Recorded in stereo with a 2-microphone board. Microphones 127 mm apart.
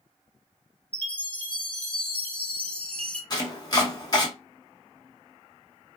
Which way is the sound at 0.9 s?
10° left (ahead or behind).